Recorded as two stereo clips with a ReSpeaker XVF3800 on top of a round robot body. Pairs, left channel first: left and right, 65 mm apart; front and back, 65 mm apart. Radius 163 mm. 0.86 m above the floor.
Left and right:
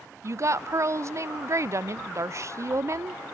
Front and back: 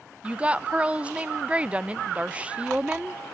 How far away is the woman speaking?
About 0.5 m.